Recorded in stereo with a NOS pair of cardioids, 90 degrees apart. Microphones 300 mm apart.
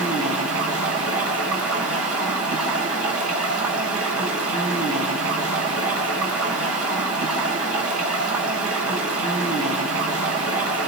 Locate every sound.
0.0 s running water: 50° right, 5.5 m